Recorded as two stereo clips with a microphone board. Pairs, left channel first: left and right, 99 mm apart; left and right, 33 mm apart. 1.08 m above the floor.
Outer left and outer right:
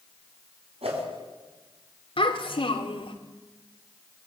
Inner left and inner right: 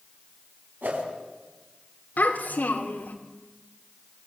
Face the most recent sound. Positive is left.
turn(degrees=60)  # may be behind; listen again after turning